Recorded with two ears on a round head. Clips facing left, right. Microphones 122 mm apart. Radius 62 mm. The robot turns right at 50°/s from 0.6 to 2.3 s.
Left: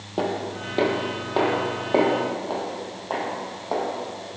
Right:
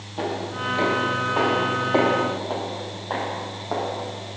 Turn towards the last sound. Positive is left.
turn(degrees=15)  # may be behind; listen again after turning